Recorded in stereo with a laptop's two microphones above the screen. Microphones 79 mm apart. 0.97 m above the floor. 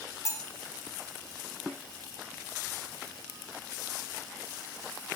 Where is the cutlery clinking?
35° left (ahead or behind), 0.8 m.